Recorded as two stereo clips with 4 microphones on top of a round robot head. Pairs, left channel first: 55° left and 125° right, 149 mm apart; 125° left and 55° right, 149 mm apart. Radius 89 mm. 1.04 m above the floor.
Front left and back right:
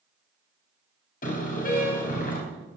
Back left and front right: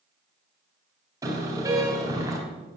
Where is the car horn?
15° left, 4 m.